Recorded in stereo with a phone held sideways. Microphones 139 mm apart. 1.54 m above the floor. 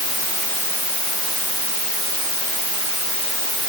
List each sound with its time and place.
Only background noise.